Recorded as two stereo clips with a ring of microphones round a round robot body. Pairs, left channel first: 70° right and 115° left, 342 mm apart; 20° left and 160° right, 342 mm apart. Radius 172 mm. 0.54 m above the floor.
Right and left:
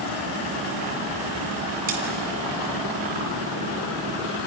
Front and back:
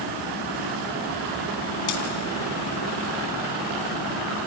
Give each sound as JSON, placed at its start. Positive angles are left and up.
{"t": 1.9, "sound": "cutlery clinking", "azimuth_deg": 45, "distance_m": 2.5}